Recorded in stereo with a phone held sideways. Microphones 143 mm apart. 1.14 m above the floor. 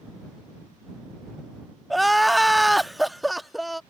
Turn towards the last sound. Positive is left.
turn(degrees=0)  # may be behind; listen again after turning